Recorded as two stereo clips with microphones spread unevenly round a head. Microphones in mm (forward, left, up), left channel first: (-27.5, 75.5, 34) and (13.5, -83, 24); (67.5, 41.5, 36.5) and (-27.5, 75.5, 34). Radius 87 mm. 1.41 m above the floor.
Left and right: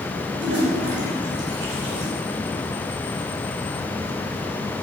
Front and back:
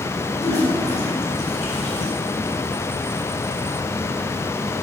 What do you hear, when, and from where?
0.3 s a toilet flushing: 60° right, 5 m